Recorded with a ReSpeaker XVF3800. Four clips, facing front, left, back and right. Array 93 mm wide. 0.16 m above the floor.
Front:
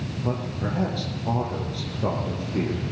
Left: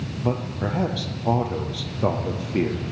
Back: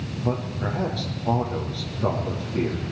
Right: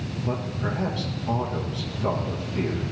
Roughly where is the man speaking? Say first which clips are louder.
Left 4 dB, back 2 dB; left.